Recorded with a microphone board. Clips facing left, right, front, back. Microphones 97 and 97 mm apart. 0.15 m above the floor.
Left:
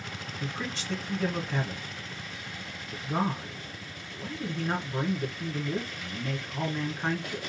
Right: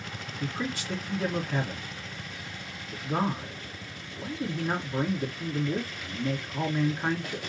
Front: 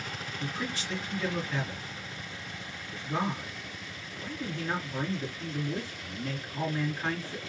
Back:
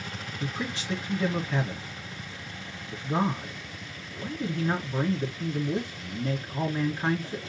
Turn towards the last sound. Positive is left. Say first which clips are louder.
# right 4 dB, back 3 dB
turn(degrees=-165)